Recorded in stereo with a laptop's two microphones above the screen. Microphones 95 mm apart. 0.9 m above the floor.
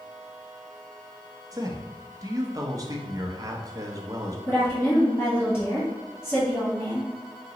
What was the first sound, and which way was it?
A man speaking, 40° right (ahead or behind).